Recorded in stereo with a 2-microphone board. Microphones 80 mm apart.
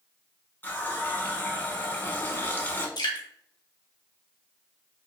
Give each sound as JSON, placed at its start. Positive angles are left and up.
{"t": 0.6, "sound": "a running tap", "side_deg": 25, "distance_m": 0.8}
{"t": 3.0, "sound": "dripping", "side_deg": 75, "distance_m": 1.0}